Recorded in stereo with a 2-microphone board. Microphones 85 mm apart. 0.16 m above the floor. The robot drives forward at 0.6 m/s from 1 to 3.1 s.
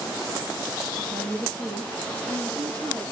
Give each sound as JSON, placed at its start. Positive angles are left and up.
{"t": 0.9, "sound": "a woman speaking", "side_deg": -80, "distance_m": 4.5}